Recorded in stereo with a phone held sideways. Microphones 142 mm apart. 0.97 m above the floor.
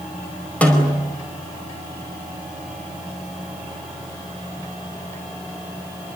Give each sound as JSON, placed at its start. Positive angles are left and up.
{"t": 0.6, "sound": "a snare drum", "side_deg": 10, "distance_m": 4.5}